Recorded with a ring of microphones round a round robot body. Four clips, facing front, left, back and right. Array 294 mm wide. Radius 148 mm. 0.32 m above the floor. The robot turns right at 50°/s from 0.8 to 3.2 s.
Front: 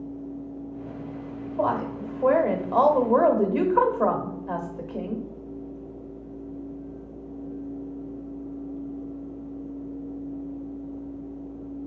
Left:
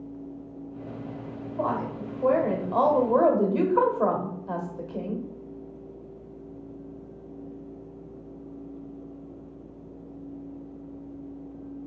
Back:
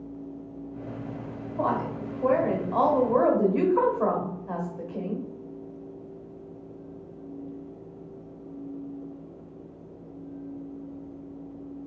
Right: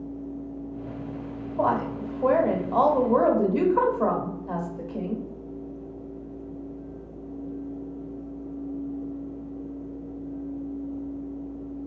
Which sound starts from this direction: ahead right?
A woman speaking, at 1.6 s.